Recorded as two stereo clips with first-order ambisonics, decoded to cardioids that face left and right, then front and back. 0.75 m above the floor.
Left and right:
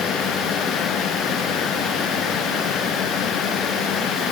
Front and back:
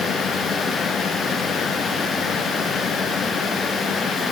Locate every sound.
Only background noise.